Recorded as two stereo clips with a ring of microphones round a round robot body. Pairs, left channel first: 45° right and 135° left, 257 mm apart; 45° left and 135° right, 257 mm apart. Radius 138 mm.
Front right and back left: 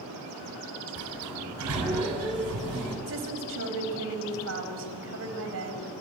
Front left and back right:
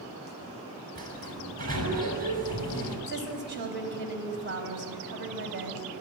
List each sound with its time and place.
0.9 s a sliding door: 165° left, 6.5 m
3.1 s a woman speaking: 175° left, 4 m